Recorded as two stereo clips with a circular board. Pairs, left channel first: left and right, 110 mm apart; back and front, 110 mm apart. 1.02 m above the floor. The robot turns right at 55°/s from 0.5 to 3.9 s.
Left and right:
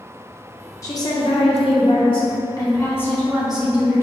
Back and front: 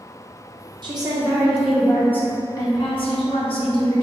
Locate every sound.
0.8 s a woman speaking: 35° left, 0.6 m; by 4.0 s 155° right, 0.6 m